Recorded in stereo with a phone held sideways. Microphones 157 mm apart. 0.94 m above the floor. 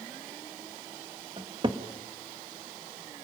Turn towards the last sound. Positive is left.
turn(degrees=-35)  # may be behind; listen again after turning